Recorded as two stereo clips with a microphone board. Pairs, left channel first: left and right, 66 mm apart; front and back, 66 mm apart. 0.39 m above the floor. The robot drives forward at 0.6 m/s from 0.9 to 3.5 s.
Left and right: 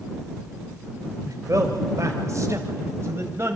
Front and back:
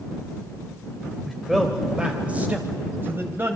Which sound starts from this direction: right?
A man speaking, at 1.2 s.